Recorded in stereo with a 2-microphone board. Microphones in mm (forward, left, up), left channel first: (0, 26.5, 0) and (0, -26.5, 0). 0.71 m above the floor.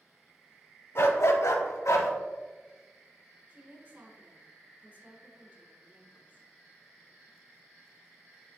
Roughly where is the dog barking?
Left.